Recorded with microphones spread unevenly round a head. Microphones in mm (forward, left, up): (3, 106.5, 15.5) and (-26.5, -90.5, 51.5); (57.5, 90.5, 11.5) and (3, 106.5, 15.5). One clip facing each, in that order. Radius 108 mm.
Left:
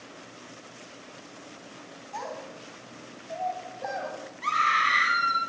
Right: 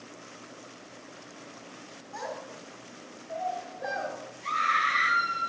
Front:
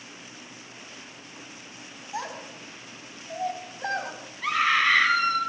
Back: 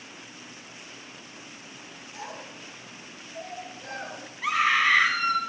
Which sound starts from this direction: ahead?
A child speaking, at 2.1 s.